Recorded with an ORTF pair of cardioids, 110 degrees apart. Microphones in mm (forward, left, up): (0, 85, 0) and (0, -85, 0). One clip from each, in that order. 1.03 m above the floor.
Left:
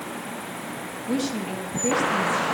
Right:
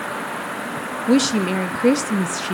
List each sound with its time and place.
1.1 s a woman speaking: 55° right, 0.6 m